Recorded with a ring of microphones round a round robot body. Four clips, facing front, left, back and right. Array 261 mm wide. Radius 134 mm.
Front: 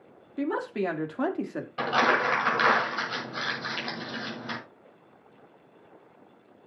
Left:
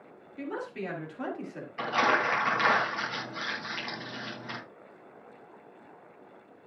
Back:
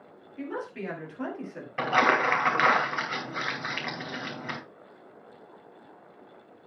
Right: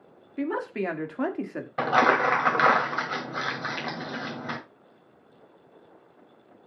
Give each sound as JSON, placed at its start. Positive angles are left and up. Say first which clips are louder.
{"t": 0.4, "sound": "a woman speaking", "louder": "right 7 dB, front 6 dB", "azimuth_deg": -50, "distance_m": 1.8}
{"t": 1.8, "sound": "crumpling", "louder": "right 5 dB, back 1 dB", "azimuth_deg": -100, "distance_m": 2.5}